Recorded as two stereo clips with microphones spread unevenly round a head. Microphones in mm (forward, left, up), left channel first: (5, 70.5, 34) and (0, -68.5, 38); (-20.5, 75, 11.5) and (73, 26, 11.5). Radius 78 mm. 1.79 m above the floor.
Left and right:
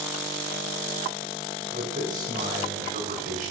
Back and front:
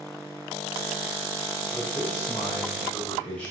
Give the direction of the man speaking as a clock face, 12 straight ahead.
4 o'clock.